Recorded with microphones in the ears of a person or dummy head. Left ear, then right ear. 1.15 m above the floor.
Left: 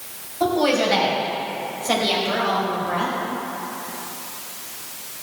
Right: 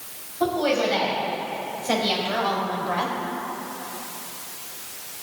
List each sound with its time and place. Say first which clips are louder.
0.4 s a woman speaking: left 3 dB; 10° left (ahead or behind), 5.5 m; by 3.1 s 25° right (ahead or behind), 3.5 m